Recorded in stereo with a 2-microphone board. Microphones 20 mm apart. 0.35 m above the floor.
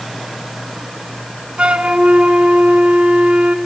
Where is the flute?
75° right (ahead or behind), 0.6 m.